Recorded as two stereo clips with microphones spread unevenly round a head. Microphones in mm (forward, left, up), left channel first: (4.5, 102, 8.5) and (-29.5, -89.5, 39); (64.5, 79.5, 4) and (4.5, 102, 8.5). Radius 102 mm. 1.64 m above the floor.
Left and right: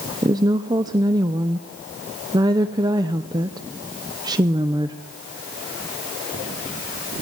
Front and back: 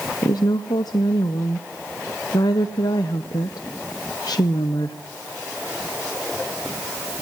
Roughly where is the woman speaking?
Ahead right.